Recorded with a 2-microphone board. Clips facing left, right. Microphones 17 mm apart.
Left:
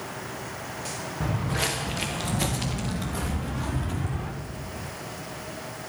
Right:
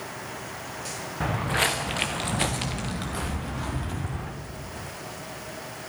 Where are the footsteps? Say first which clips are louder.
Right 4 dB; 75° right (ahead or behind), 1.6 m; by 4.3 s 15° right (ahead or behind), 2.5 m.